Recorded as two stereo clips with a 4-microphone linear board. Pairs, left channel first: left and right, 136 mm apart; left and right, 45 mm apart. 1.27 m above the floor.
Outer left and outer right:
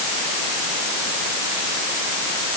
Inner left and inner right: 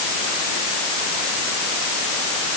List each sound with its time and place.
Only background noise.